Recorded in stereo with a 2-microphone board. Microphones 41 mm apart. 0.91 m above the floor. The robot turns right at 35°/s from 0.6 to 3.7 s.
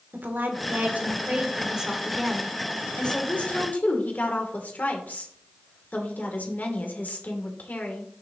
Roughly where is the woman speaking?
Ahead right.